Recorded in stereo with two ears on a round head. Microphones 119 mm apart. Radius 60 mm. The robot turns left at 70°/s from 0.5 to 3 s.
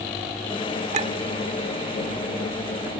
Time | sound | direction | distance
0.9 | a clink | 50° right (ahead or behind) | ?